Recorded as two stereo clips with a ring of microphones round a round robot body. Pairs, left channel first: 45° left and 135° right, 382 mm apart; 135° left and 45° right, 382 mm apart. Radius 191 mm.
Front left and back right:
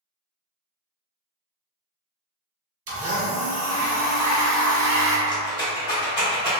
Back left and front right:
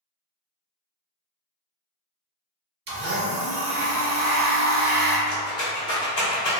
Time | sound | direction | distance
2.9 | a blender | 95° right | 1.2 m
5.3 | a rattle | 115° left | 1.2 m